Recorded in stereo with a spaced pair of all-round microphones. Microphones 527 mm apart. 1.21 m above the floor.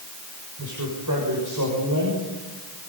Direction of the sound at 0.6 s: 35° right (ahead or behind).